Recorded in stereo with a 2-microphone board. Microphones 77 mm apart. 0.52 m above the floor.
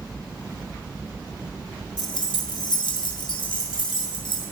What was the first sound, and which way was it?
Keys jangling, 75° left (ahead or behind).